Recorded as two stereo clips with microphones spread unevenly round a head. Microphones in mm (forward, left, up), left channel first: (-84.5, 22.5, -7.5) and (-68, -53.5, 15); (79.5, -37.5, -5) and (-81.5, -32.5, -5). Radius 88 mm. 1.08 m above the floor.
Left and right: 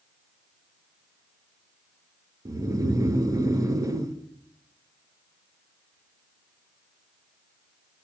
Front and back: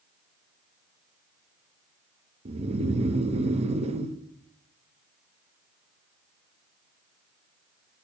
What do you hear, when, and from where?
2.5 s snoring: 130° right, 0.8 m